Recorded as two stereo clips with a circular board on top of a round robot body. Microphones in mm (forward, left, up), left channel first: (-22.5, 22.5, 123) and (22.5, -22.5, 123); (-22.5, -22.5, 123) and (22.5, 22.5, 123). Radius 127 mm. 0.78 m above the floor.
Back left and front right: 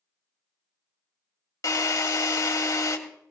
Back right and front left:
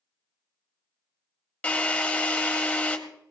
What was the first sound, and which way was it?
A drill, 155° left.